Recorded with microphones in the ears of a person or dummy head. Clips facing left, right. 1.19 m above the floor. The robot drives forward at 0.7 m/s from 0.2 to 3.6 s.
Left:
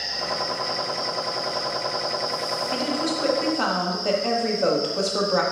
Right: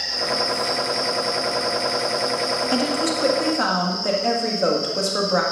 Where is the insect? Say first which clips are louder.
Right 4 dB; 50° right (ahead or behind), 3.5 m; by 5.5 s 80° right, 2.5 m.